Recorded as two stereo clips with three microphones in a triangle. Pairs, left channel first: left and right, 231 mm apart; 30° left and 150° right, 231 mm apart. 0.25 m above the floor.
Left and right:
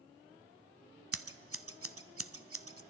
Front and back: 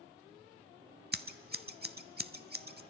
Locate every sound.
1.1 s scissors: 100° right, 0.5 m